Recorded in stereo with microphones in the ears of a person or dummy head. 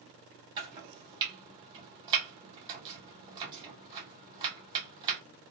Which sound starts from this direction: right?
Chopping, at 0.6 s.